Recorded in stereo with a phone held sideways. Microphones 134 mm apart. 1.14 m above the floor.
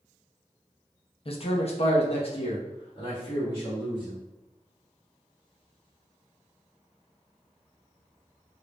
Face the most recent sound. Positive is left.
turn(degrees=35)  # may be behind; listen again after turning